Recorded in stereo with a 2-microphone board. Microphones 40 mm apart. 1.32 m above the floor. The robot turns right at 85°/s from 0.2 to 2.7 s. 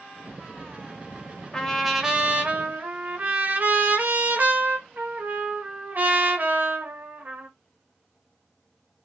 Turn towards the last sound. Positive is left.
turn(degrees=-105)